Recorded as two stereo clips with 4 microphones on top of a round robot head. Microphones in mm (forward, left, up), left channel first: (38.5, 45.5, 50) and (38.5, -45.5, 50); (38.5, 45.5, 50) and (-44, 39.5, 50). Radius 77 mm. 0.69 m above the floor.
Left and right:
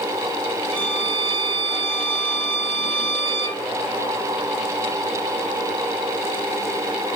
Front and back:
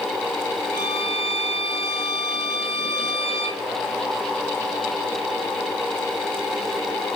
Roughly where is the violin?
Right.